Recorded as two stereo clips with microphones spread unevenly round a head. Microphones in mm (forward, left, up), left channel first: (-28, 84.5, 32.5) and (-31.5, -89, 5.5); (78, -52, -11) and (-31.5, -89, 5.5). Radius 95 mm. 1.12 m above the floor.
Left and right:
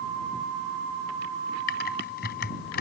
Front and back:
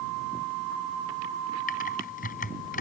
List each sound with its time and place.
1.7 s typing on a keyboard: 45° left